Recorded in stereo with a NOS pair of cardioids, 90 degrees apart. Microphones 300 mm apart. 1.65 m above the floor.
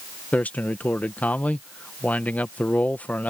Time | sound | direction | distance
0.3 | a man speaking | 5° left | ?